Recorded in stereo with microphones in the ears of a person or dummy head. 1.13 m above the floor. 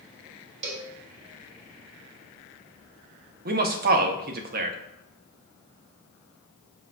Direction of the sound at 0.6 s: 40° right (ahead or behind).